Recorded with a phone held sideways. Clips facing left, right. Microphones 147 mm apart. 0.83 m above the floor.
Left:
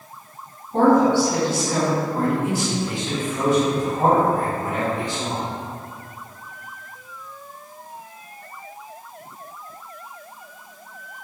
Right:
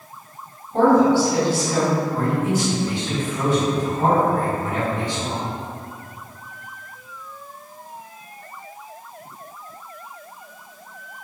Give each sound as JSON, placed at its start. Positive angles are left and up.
{"t": 0.7, "sound": "a woman speaking", "side_deg": 80, "distance_m": 1.8}
{"t": 2.1, "sound": "a man speaking", "side_deg": 45, "distance_m": 1.7}